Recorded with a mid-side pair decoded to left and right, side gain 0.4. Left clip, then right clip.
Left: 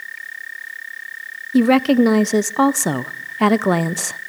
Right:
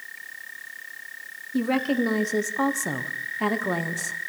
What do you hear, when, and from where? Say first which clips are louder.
1.5 s a woman speaking: left 10 dB; 65° left, 0.7 m